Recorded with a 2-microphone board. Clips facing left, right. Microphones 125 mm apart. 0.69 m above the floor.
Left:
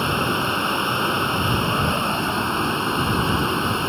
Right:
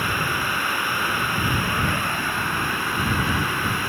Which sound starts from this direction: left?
Running water, at 0.0 s.